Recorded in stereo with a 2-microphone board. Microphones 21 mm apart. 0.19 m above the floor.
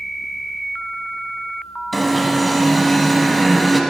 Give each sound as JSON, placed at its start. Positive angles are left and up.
{"t": 1.9, "sound": "an alarm", "side_deg": 0, "distance_m": 0.8}